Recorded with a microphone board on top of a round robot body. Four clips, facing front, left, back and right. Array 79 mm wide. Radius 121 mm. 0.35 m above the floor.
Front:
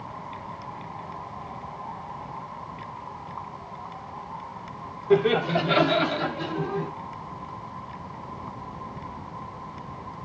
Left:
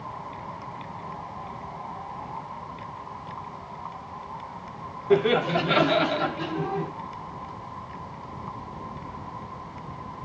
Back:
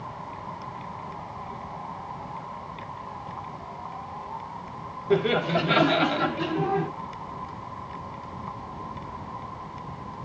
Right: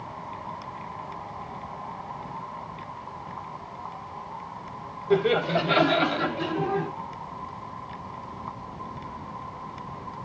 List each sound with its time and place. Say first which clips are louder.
5.1 s laughter: left 1 dB, front 2 dB; 75° left, 1.3 m; by 6.9 s 160° right, 1.4 m